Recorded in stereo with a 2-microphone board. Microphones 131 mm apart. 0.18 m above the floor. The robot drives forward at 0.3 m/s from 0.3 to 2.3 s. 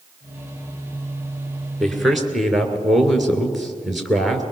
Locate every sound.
1.8 s a man speaking: centre (ahead or behind), 2.5 m